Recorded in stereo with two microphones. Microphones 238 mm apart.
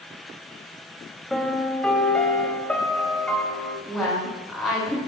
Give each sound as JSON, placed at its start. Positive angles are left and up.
{"t": 1.3, "sound": "a piano", "side_deg": 5, "distance_m": 1.0}
{"t": 3.9, "sound": "a woman speaking", "side_deg": 5, "distance_m": 2.0}